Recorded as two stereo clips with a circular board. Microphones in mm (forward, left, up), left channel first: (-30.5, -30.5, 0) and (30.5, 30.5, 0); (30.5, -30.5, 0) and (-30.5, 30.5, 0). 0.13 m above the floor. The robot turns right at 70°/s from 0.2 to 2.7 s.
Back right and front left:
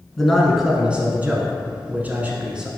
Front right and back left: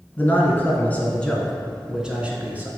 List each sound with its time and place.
0.2 s a man speaking: 60° right, 1.2 m; by 2.7 s 115° left, 1.2 m